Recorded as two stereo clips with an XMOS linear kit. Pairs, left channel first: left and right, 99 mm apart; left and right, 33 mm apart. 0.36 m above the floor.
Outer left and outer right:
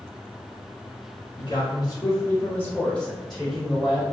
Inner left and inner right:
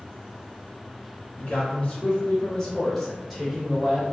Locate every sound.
1.4 s a man speaking: 45° left (ahead or behind), 1.2 m; by 4.1 s 15° right (ahead or behind), 1.1 m